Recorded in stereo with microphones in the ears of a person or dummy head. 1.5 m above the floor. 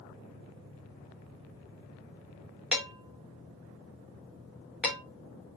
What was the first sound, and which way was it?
Dishes clattering, 5° right (ahead or behind).